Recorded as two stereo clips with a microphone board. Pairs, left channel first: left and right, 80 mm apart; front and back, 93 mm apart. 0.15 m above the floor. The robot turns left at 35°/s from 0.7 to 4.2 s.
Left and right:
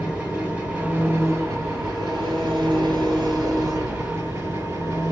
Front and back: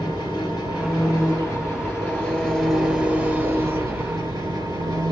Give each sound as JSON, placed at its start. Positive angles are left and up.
{"t": 0.0, "sound": "an engine running", "azimuth_deg": -25, "distance_m": 2.5}